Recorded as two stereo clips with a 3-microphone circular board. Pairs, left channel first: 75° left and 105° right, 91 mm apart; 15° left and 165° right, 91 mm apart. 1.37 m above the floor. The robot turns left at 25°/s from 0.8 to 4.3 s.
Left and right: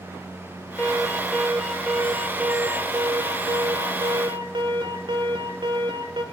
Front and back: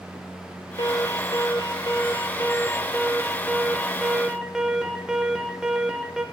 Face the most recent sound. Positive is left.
turn(degrees=-85)